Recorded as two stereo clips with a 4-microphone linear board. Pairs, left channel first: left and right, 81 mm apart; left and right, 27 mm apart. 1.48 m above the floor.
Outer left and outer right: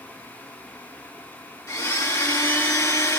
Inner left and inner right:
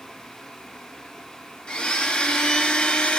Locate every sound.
1.7 s a blender: 30° left (ahead or behind), 1.4 m